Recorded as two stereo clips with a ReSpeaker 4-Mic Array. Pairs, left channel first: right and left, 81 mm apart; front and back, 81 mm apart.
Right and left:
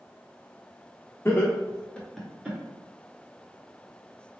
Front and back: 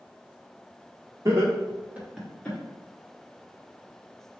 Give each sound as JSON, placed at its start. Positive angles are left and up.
{"t": 1.2, "sound": "laughter", "azimuth_deg": -140, "distance_m": 1.2}